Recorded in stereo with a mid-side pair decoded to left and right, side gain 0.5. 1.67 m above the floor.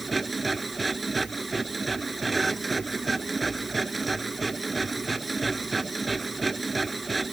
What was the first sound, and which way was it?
A machine running, 20° right.